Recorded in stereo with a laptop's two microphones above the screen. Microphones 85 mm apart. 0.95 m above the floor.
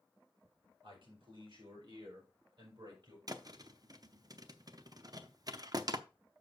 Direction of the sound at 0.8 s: 75° right (ahead or behind).